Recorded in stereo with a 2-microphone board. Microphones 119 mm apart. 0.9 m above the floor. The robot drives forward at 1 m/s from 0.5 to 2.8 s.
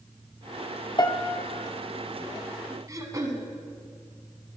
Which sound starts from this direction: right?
Throat clearing, at 2.9 s.